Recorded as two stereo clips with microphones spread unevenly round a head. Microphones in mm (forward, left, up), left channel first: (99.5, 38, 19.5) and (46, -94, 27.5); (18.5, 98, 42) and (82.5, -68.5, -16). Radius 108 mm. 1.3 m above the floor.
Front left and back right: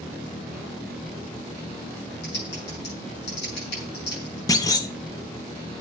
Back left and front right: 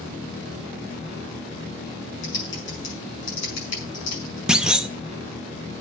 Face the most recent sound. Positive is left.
turn(degrees=70)